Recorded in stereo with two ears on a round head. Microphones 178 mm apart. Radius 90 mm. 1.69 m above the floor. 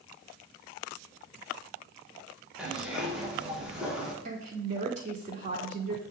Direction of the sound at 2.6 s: 5° right (ahead or behind).